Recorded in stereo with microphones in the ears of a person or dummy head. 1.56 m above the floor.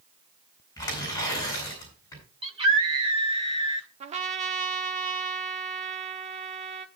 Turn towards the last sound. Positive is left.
turn(degrees=-35)  # may be behind; listen again after turning